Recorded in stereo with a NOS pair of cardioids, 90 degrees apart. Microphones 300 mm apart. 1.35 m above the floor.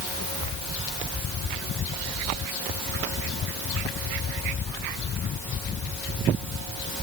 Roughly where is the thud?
I don't hear a thud.